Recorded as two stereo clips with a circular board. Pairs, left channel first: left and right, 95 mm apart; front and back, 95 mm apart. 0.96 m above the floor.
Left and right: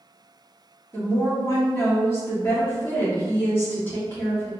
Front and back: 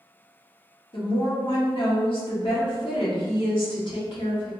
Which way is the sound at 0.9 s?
25° left.